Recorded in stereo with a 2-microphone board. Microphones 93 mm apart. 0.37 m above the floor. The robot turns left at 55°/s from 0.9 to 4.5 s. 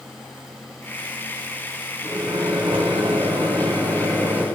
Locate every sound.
2.0 s a microwave: 30° right, 1.8 m; by 4.5 s 165° right, 1.8 m